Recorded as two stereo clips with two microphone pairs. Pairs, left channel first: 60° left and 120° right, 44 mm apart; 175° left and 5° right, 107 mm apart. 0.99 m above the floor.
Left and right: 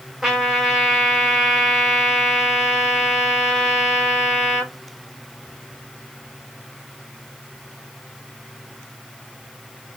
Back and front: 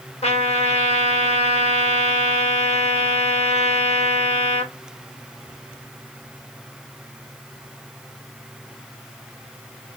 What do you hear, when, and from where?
0.2 s a trumpet: 155° left, 1.6 m